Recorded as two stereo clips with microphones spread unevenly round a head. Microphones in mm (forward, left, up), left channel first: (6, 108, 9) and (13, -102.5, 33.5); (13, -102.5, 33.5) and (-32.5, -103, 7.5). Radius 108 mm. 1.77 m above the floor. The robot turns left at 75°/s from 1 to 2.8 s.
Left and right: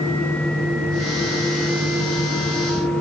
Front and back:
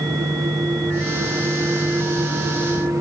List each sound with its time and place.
Only background noise.